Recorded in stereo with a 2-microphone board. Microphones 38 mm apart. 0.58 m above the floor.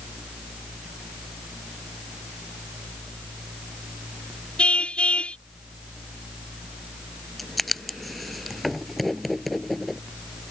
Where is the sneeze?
No sneeze in this recording.